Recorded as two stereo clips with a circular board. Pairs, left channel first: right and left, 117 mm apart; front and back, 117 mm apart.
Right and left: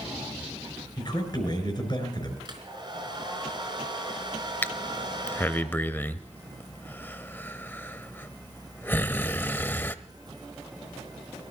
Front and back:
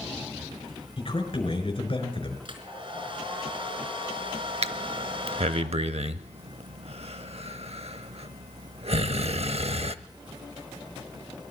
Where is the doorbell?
No doorbell in this recording.